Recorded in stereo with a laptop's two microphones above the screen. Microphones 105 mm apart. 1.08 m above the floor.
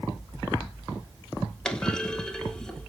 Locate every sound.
1.6 s a clunk: 5° left (ahead or behind), 1.0 m